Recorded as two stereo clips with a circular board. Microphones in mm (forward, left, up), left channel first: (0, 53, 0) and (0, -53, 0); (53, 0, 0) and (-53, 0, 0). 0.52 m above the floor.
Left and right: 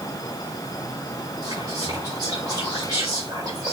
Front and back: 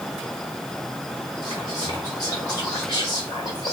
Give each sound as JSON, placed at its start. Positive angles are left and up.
{"t": 1.4, "sound": "whispering", "azimuth_deg": -40, "distance_m": 1.9}